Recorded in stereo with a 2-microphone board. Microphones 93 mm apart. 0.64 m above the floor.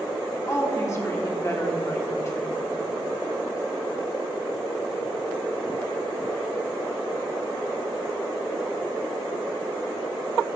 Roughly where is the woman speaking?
Left.